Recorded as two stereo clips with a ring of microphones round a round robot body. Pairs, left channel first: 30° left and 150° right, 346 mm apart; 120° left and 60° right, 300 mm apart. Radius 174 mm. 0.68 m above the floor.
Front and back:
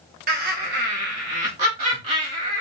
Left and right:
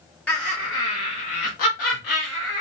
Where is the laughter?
160° right, 0.7 m; by 2.6 s 135° left, 2.5 m.